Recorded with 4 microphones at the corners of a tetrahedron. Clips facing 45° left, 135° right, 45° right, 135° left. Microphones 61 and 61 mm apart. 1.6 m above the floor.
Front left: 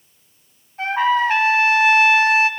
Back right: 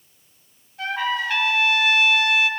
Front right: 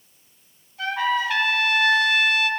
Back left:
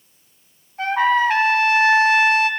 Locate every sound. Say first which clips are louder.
0.8 s a trumpet: front left 7 dB, back left 6 dB; 100° left, 1.6 m